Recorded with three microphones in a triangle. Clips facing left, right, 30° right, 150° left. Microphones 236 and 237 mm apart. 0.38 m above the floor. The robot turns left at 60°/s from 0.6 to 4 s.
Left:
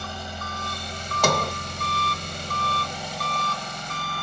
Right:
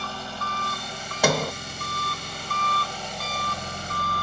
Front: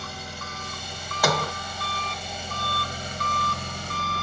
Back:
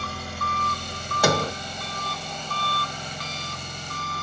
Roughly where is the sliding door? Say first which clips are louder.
Right 1 dB, back 3 dB; behind.